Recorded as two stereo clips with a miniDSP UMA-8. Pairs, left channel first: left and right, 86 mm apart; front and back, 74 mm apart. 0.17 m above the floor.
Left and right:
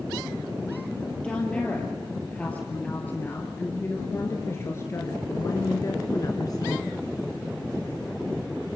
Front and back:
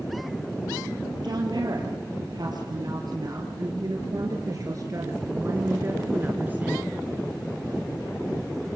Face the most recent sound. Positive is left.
turn(degrees=110)